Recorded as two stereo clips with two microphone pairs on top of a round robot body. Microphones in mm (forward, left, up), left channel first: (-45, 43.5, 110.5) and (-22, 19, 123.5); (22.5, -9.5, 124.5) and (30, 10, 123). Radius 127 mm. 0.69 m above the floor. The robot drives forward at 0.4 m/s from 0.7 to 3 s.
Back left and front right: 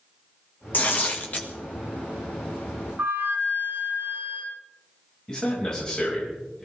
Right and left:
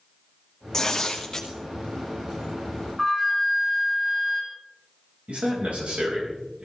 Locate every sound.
0.7 s tearing paper: 175° left, 1.8 m
3.0 s a flute: 15° right, 5.5 m
5.3 s a man speaking: 70° left, 4.5 m